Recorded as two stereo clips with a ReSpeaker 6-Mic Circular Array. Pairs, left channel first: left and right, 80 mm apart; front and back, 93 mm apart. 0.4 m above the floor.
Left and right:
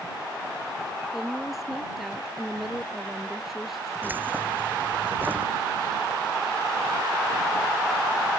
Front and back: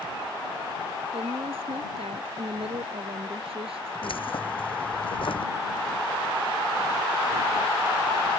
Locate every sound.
1.1 s a woman speaking: 175° right
4.0 s keys jangling: 25° right